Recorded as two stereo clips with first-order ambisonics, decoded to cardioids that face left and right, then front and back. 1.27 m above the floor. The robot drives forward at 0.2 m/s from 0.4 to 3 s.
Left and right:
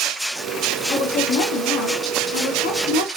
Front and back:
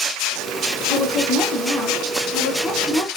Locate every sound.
0.9 s a woman speaking: 65° left, 0.9 m; by 3.1 s 95° left, 0.8 m